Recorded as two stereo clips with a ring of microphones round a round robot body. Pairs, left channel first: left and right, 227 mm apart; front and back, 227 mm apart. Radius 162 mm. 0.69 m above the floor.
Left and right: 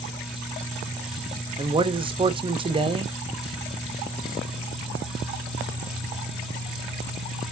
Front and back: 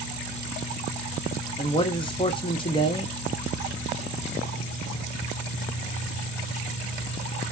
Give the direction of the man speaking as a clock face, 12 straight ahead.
2 o'clock.